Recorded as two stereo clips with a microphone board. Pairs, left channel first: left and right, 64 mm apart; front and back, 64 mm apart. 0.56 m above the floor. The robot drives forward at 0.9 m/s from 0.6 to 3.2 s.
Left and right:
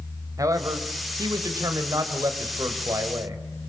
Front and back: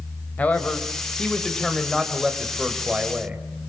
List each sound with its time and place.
0.4 s a man speaking: 65° right, 3.5 m; by 3.4 s 110° right, 3.5 m